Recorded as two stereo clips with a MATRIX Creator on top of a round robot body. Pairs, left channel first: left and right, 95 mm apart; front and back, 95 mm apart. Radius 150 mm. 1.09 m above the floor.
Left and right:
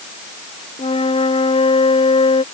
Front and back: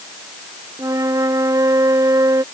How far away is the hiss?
I don't hear a hiss.